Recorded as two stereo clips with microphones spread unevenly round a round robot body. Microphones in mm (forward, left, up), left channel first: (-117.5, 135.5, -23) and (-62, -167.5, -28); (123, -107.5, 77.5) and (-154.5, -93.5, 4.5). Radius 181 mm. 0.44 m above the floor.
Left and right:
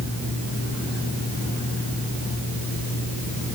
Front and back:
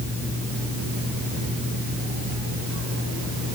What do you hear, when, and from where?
Only background noise.